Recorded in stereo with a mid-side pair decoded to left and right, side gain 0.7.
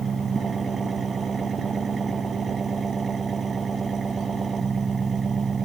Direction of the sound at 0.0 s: 20° right.